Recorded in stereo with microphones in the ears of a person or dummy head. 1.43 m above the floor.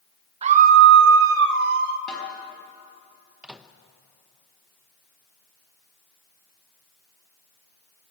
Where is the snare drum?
5° left (ahead or behind), 5 m.